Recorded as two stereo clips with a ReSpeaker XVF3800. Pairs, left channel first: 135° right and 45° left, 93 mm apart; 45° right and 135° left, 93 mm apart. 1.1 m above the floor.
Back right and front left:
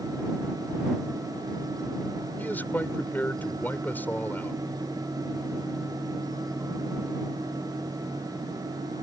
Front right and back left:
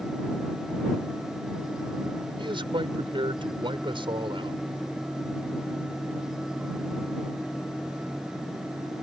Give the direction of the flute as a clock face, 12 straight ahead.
No flute in this recording.